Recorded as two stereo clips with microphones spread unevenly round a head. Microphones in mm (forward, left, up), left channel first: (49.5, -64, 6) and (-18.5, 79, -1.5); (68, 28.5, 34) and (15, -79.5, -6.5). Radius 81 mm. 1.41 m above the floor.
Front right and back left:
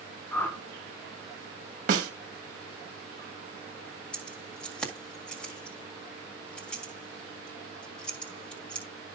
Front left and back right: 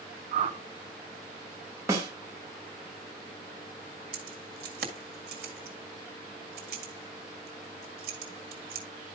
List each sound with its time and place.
0.3 s a whoosh: 145° right, 1.1 m
1.9 s a snare drum: 165° left, 1.7 m
4.1 s keys jangling: 150° right, 1.8 m